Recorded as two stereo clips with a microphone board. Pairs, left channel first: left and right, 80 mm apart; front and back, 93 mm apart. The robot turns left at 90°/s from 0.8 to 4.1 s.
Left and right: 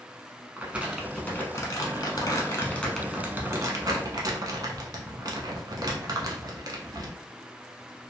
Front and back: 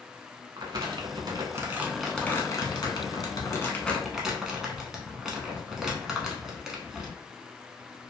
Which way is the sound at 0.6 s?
160° right.